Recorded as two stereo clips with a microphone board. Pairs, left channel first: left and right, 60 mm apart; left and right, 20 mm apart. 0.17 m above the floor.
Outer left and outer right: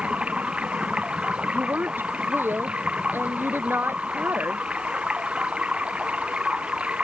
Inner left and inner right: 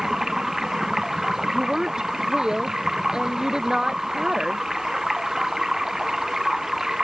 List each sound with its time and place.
0.0 s running water: 20° right (ahead or behind)
1.5 s a woman speaking: 35° right (ahead or behind)